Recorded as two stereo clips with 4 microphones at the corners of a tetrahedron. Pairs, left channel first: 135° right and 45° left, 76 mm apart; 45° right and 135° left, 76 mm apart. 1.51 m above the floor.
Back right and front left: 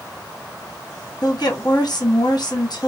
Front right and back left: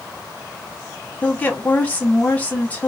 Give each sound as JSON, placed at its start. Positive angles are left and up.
{"t": 1.2, "sound": "a woman speaking", "azimuth_deg": -115, "distance_m": 1.0}